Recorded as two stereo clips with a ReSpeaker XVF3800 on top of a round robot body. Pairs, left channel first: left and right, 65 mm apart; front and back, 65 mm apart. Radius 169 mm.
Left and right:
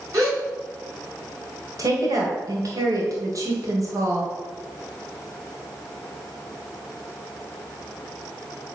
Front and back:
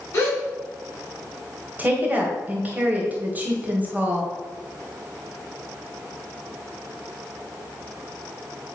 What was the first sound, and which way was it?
A gasp, 55° right.